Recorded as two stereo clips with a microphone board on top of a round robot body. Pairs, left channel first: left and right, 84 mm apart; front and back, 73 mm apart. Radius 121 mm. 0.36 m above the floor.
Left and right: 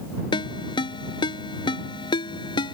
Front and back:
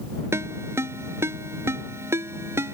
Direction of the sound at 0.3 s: 120° left.